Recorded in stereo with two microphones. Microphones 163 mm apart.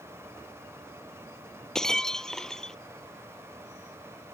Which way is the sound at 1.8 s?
5° left (ahead or behind).